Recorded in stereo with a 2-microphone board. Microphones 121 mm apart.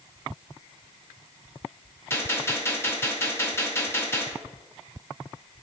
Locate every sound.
2.1 s a gunshot: 20° left (ahead or behind), 1.8 m